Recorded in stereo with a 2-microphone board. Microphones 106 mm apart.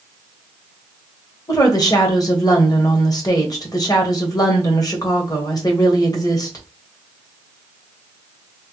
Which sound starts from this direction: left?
A woman speaking, at 1.5 s.